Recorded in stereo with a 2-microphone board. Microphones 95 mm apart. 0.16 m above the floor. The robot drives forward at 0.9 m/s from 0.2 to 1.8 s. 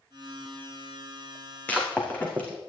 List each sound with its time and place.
1.7 s breaking glass: 15° left (ahead or behind), 3.5 m